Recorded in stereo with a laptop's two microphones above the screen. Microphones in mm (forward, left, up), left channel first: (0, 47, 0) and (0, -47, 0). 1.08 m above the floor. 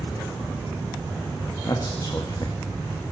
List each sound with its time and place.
1.6 s a man speaking: 40° left (ahead or behind), 2 m